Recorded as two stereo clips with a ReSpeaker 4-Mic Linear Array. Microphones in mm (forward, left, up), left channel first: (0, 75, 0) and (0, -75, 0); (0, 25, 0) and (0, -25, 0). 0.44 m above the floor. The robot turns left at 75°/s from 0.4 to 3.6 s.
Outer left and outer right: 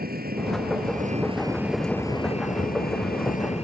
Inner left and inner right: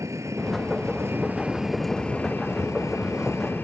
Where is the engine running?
75° right; by 3.6 s 45° left.